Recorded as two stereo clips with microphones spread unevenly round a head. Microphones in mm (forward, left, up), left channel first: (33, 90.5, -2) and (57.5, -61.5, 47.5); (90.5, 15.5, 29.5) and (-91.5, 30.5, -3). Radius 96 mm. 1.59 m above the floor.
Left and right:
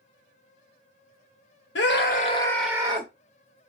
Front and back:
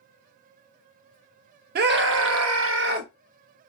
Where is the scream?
135° left, 0.8 m; by 3.1 s 130° right, 0.7 m.